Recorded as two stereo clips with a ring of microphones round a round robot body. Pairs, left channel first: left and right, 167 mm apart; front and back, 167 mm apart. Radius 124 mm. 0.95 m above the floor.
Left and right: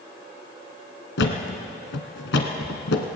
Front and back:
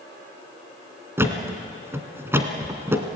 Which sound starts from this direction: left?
A thud, at 1.2 s.